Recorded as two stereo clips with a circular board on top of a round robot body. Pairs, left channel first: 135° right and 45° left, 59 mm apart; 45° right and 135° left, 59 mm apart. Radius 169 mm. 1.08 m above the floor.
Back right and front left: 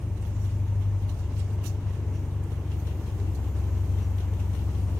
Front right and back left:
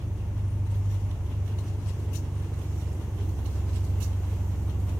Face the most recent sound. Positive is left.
turn(degrees=145)